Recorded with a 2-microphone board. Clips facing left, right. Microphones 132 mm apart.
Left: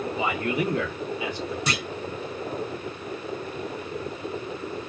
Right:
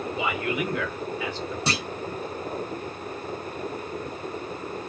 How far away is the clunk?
About 0.6 m.